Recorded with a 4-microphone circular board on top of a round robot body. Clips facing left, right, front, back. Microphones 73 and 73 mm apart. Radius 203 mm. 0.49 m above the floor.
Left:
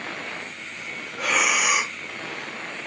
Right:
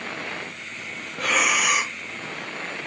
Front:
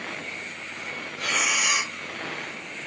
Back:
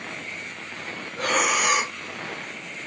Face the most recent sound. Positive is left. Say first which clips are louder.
# even, back 4 dB
turn(degrees=175)